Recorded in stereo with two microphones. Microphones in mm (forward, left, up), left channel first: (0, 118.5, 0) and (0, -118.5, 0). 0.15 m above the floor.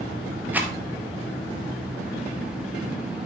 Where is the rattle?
5° right (ahead or behind), 1.8 m.